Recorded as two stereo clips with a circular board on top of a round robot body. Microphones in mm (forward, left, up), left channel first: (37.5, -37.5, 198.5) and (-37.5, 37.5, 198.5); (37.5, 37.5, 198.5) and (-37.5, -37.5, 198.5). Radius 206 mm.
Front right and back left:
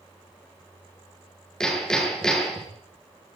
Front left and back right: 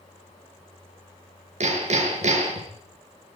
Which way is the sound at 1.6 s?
130° right.